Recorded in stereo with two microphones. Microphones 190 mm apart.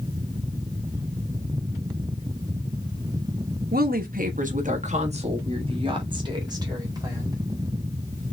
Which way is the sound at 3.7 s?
50° right (ahead or behind).